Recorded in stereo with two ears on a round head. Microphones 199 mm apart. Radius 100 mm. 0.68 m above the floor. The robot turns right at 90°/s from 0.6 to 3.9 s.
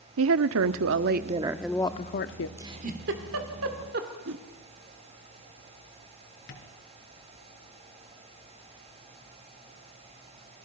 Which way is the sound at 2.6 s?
10° right (ahead or behind).